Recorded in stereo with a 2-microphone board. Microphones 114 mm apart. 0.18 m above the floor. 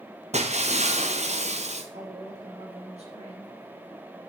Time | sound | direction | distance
0.3 | breaking glass | 80° right | 1.6 m
1.9 | a woman speaking | 70° right (ahead or behind) | 5.5 m